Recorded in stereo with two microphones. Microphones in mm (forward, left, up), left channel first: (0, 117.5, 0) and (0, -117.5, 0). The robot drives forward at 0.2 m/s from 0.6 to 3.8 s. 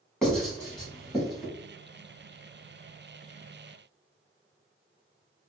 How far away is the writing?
About 1.5 m.